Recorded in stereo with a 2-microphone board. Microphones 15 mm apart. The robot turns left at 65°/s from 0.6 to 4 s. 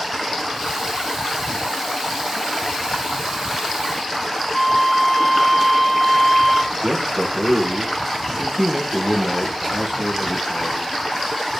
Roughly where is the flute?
Centre.